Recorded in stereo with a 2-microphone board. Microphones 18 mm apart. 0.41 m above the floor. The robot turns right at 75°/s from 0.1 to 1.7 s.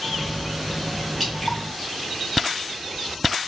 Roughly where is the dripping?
Centre.